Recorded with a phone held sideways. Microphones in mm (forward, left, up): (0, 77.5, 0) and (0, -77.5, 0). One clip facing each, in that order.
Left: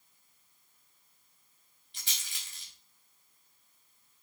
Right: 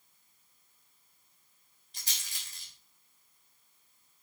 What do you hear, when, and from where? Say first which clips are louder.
1.9 s a rattle: even; 40° right (ahead or behind), 3.5 m